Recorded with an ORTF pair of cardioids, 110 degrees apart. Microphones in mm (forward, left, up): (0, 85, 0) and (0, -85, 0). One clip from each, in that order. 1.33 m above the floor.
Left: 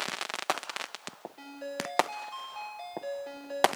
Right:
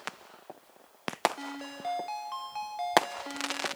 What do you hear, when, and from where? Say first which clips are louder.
1.4 s a ringtone: left 1 dB; 60° right, 3 m